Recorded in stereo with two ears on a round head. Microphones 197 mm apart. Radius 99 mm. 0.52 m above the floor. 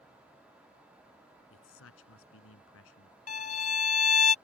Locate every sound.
1.5 s a man speaking: 70° left (ahead or behind)
3.3 s a violin: 35° left (ahead or behind)